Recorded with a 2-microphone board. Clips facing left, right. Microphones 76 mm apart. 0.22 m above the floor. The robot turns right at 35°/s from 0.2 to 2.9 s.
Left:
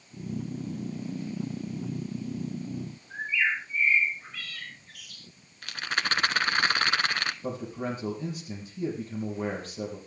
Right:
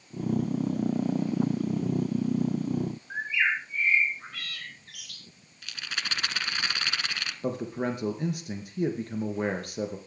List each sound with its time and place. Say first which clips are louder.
3.1 s a bird: left 1 dB; 70° right (ahead or behind), 2.5 m
5.6 s a rattle: left 6 dB; 45° left (ahead or behind), 0.8 m
7.4 s a man speaking: right 3 dB; 70° right (ahead or behind), 3.5 m